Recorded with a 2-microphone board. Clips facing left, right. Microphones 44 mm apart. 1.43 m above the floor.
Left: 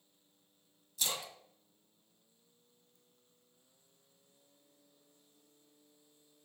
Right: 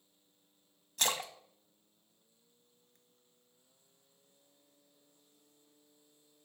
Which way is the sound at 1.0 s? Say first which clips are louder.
Right 5 dB; 60° right (ahead or behind).